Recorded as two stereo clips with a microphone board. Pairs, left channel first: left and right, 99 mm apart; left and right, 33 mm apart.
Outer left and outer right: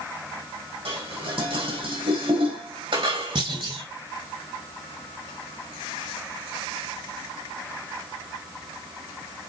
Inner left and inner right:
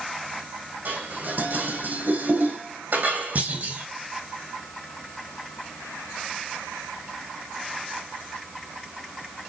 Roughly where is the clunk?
Right.